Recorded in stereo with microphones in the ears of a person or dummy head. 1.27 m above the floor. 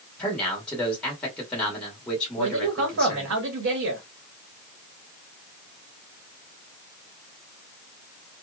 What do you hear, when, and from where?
0.2 s a man speaking: 5° left (ahead or behind), 1.1 m
2.4 s a man speaking: 70° right (ahead or behind), 1.2 m